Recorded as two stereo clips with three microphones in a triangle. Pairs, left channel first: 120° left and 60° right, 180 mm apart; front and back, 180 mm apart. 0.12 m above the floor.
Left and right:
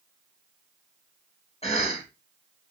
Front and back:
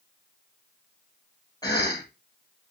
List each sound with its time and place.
1.6 s a cough: 65° left, 3 m